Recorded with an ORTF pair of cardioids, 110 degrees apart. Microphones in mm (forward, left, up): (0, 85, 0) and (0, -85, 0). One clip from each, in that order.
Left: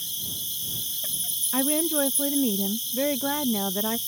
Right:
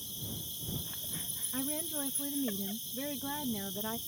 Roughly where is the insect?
Ahead left.